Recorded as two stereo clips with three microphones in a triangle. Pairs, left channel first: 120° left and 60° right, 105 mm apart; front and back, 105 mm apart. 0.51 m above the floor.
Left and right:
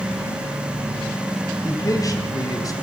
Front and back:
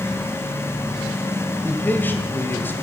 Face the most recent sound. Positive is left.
turn(degrees=70)